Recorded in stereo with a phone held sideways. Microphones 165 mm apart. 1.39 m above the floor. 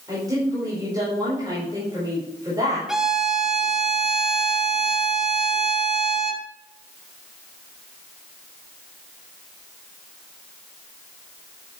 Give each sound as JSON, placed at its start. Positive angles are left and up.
{"t": 0.1, "sound": "a woman speaking", "side_deg": -25, "distance_m": 5.0}
{"t": 2.9, "sound": "a violin", "side_deg": -5, "distance_m": 1.0}